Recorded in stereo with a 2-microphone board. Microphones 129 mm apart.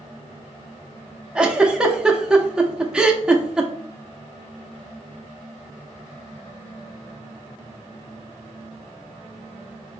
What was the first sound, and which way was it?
A giggle, 10° right (ahead or behind).